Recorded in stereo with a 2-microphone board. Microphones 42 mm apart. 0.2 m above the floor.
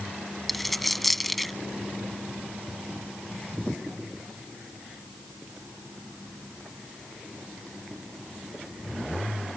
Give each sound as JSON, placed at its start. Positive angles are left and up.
{"t": 0.5, "sound": "a dropped coin", "side_deg": 5}